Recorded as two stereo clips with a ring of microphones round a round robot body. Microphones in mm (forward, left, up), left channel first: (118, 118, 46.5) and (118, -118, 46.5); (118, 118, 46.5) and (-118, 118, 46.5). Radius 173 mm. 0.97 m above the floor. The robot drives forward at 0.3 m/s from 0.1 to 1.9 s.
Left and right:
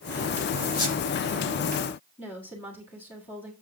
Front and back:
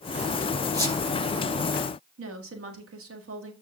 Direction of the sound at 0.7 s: 105° left.